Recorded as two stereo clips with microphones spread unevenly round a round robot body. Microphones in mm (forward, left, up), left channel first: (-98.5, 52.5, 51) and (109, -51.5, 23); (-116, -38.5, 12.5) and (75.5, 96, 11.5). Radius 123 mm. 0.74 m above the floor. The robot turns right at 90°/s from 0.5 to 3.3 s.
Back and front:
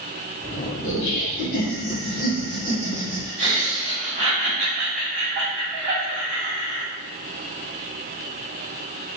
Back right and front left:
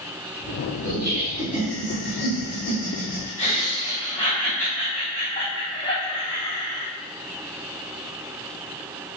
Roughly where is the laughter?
Ahead left.